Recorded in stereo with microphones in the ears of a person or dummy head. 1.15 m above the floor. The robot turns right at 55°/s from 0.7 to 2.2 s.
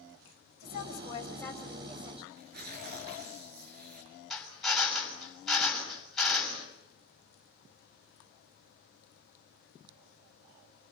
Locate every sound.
0.6 s a woman speaking: 130° left, 7.5 m; by 2.2 s 150° right, 7.5 m
2.4 s tearing paper: 55° right (ahead or behind), 6 m
4.3 s a drill: 5° left (ahead or behind), 6 m